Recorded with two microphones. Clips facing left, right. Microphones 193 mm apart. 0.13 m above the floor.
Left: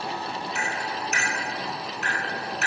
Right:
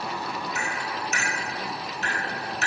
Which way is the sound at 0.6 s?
65° left (ahead or behind).